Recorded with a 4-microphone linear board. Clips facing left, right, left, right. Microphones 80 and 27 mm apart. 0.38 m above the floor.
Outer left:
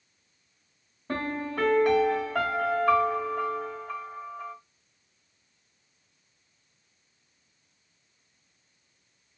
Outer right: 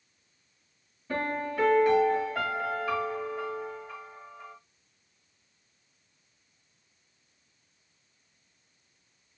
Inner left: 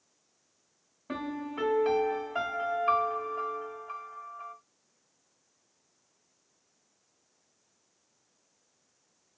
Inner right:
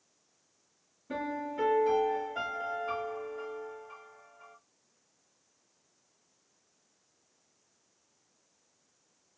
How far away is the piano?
About 2 m.